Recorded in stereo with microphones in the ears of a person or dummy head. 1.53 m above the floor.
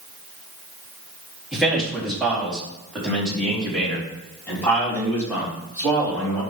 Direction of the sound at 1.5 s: Centre (ahead or behind).